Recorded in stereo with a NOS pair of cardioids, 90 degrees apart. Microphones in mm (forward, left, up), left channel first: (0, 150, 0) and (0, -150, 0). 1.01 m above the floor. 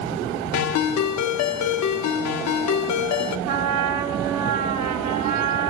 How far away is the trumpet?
About 3.5 m.